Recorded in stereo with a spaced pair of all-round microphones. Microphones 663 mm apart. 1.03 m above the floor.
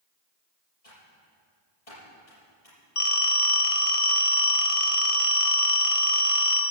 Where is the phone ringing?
55° left (ahead or behind), 1.7 m.